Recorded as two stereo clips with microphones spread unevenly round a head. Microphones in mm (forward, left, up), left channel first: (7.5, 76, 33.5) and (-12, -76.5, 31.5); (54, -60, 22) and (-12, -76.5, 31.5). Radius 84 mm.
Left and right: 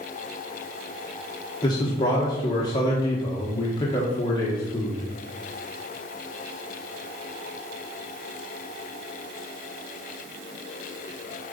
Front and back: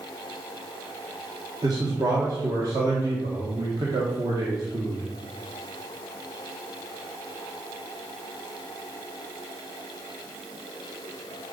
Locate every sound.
1.6 s a man speaking: 145° left, 1.4 m